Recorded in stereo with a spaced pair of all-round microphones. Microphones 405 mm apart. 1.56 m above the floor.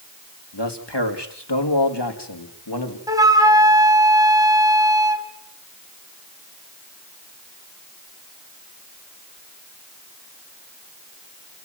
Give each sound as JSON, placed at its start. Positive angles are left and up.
{"t": 0.5, "sound": "a man speaking", "side_deg": 80, "distance_m": 3.0}
{"t": 3.1, "sound": "a flute", "side_deg": -10, "distance_m": 2.5}